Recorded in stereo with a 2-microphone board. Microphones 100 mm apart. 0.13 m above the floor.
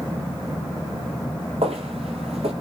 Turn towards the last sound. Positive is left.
turn(degrees=-80)